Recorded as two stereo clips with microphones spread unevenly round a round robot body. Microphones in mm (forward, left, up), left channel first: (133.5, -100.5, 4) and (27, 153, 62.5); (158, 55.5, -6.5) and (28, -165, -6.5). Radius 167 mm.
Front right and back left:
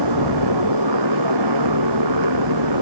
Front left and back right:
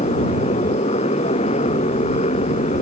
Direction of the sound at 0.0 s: 135° left.